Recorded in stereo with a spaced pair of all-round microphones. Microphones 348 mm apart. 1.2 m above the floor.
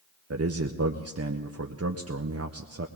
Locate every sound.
0.3 s a man speaking: 45° right (ahead or behind), 0.6 m